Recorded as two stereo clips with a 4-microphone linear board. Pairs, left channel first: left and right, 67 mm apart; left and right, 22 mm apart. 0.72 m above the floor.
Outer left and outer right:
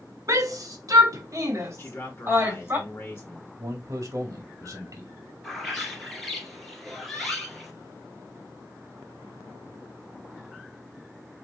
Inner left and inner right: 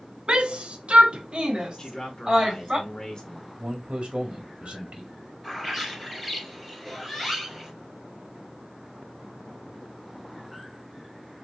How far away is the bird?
About 2 m.